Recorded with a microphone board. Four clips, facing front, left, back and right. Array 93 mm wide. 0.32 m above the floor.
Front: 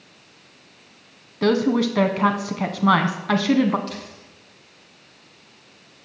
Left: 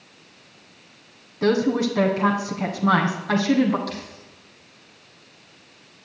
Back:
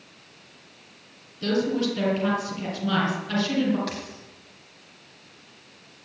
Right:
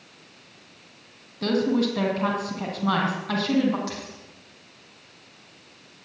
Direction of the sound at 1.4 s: 15° left.